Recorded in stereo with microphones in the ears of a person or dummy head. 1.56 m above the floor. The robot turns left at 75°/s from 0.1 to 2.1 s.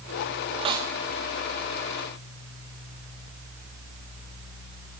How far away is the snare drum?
About 1.0 m.